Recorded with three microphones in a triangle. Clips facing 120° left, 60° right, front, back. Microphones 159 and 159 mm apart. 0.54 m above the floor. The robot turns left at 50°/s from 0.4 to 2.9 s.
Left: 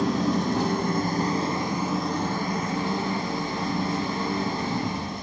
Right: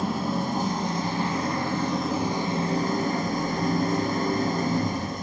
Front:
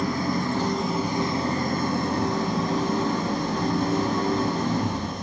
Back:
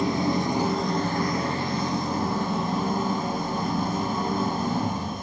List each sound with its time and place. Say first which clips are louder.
0.0 s an engine running: left 3 dB, back 1 dB; 110° left, 2 m; by 5.2 s 15° right, 2 m